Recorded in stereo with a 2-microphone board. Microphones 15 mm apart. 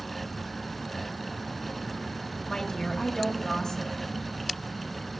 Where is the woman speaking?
40° left (ahead or behind), 1.4 m.